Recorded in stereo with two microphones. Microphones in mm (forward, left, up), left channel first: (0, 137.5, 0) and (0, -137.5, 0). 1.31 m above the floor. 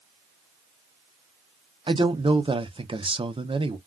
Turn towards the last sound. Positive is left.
turn(degrees=-20)  # may be behind; listen again after turning